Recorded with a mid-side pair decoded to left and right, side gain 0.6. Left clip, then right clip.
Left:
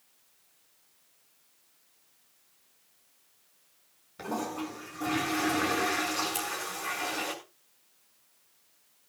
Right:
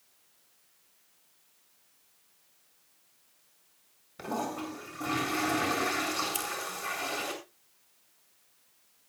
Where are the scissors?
15° right, 6.5 m.